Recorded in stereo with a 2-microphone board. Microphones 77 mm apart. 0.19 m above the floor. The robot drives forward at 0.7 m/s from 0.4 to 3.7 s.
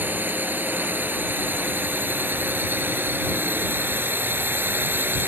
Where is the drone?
25° right (ahead or behind); by 5.3 s 30° right (ahead or behind).